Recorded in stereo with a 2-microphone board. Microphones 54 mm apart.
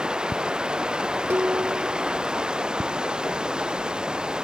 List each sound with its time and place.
0.0 s running water: 15° right (ahead or behind)
1.3 s dishes clattering: 60° right (ahead or behind)